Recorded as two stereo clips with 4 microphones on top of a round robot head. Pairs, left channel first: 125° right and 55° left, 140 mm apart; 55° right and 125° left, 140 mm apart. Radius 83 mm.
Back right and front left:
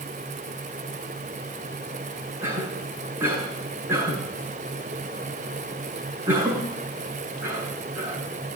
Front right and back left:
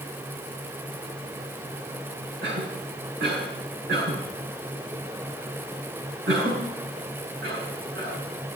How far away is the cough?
About 8 m.